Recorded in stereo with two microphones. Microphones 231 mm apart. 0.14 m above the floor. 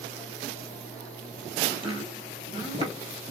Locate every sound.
1.7 s chopping: 20° right (ahead or behind), 1.5 m